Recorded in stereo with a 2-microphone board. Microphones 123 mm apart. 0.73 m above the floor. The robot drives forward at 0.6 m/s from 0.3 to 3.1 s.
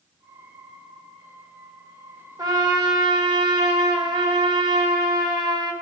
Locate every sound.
2.4 s a trumpet: 30° right (ahead or behind), 2.5 m; by 5.7 s 35° right (ahead or behind), 2 m